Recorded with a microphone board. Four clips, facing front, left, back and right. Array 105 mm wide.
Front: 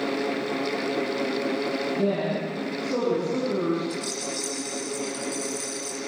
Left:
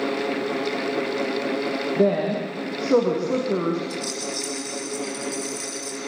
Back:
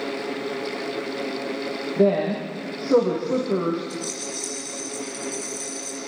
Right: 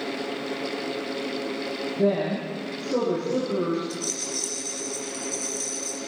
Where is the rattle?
70° left, 7 m.